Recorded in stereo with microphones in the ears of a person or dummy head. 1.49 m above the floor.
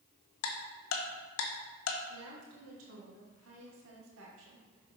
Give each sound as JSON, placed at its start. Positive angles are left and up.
{"t": 0.4, "sound": "ticking", "side_deg": 75, "distance_m": 1.1}
{"t": 2.1, "sound": "a woman speaking", "side_deg": -70, "distance_m": 1.4}